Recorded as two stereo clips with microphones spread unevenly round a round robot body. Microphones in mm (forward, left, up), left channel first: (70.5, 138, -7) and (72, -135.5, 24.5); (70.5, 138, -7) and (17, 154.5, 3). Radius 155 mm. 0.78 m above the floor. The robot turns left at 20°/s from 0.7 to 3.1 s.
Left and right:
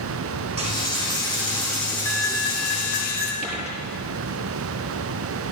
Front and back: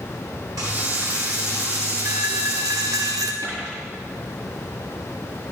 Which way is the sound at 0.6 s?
160° right.